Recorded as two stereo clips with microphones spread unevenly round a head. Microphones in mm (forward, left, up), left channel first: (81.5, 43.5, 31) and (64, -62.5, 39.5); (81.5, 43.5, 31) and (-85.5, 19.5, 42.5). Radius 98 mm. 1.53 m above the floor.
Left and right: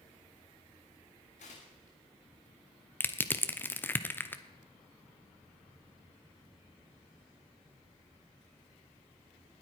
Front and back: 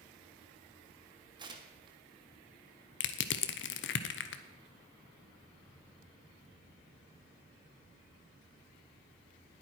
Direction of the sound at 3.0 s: 10° left.